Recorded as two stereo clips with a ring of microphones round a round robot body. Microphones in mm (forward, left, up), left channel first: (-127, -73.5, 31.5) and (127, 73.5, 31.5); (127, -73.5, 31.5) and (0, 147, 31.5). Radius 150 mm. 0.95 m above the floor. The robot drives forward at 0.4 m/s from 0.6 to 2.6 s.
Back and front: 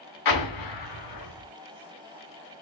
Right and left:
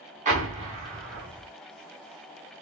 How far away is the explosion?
About 1.4 m.